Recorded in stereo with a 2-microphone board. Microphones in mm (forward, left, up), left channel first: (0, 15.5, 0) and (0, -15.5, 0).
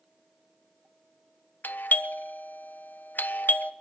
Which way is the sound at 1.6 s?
75° left (ahead or behind).